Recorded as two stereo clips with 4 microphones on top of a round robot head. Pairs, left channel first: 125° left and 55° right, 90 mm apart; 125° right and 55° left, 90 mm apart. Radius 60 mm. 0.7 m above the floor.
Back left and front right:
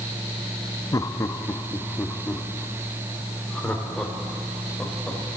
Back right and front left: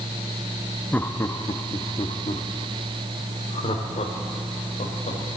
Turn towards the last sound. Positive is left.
turn(degrees=-150)